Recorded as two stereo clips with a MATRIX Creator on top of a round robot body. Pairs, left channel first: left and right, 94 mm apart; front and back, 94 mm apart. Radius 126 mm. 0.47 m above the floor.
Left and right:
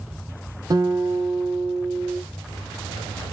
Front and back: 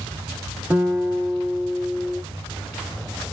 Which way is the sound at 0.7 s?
115° right.